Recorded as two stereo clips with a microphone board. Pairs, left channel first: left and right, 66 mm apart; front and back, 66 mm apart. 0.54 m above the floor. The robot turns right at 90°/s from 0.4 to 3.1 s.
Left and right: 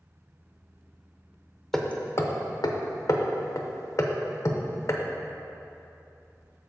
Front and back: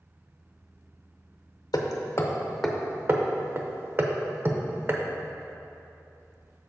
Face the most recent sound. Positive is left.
turn(degrees=125)